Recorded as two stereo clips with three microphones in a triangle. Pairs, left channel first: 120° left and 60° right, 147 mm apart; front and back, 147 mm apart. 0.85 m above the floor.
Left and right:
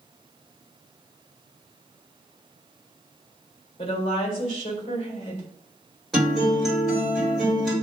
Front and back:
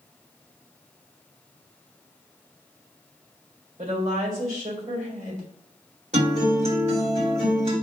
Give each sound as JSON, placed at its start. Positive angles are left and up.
{"t": 3.8, "sound": "a woman speaking", "azimuth_deg": 160, "distance_m": 2.0}
{"t": 6.1, "sound": "a guitar", "azimuth_deg": -150, "distance_m": 2.0}